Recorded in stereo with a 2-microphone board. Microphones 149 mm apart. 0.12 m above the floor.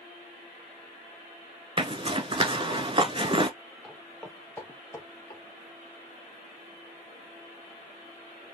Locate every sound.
1.8 s a zipper: 35° right (ahead or behind), 0.5 m
3.8 s footsteps: centre (ahead or behind), 1.7 m; by 5.4 s 25° left (ahead or behind), 2 m